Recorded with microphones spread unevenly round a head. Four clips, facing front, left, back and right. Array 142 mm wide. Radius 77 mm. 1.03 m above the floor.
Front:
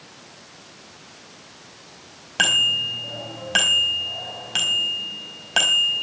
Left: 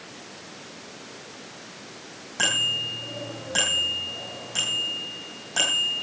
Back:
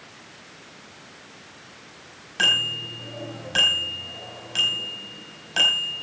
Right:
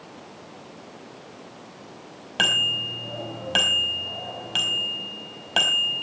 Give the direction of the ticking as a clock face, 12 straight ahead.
No ticking in this recording.